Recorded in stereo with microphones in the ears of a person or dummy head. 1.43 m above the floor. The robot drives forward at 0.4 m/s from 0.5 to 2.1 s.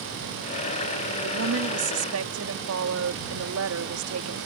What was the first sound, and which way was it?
A woman speaking, 85° right.